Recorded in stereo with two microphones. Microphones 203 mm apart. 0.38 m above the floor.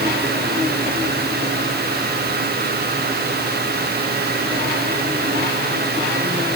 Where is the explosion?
No explosion in this recording.